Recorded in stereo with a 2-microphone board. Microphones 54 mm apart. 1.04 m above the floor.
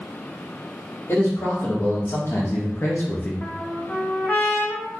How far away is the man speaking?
About 1.5 m.